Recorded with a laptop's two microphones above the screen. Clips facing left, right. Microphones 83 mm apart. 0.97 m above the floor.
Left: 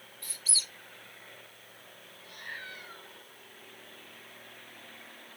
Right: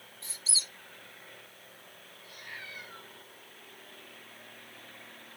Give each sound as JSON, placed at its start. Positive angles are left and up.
{"t": 0.2, "sound": "a squeak", "side_deg": -25, "distance_m": 0.9}
{"t": 2.2, "sound": "a cat meowing", "side_deg": 55, "distance_m": 4.0}